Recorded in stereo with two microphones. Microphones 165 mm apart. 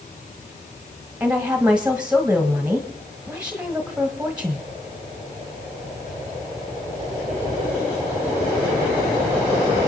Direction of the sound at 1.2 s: 10° right (ahead or behind).